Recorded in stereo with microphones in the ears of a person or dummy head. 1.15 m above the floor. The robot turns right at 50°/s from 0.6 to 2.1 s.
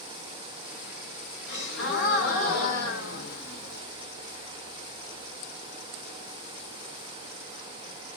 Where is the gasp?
65° left, 1.7 m; by 3.8 s 100° left, 1.7 m.